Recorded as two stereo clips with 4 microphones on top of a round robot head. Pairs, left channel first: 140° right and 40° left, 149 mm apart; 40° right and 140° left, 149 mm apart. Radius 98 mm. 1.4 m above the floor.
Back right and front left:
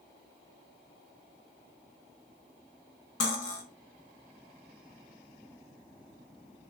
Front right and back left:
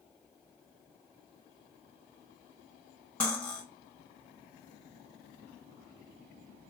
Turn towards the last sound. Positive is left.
turn(degrees=-125)